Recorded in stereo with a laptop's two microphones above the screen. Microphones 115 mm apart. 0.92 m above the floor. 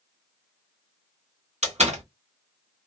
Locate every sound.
1.6 s a door slam: 75° right (ahead or behind), 1.5 m